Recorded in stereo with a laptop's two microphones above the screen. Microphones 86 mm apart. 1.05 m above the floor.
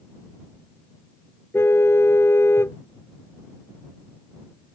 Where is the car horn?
25° left (ahead or behind).